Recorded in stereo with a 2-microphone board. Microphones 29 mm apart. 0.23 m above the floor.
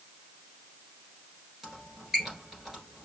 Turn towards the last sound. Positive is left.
turn(degrees=-10)  # may be behind; listen again after turning